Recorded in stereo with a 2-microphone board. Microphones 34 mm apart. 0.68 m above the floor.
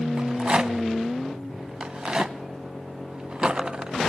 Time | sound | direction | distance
0.2 | a rattle | 35° right (ahead or behind) | 0.7 m